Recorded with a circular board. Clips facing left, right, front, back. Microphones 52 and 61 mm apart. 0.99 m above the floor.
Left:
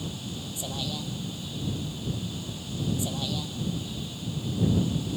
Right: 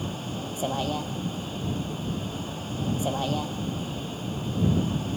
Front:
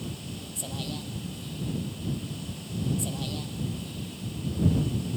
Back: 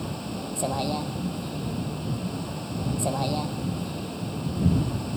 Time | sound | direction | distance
0.0 | a vehicle | 140° right | ?